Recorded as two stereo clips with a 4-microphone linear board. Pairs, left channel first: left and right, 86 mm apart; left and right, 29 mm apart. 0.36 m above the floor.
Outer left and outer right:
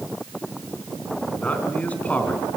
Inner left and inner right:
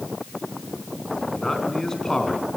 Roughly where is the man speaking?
Centre.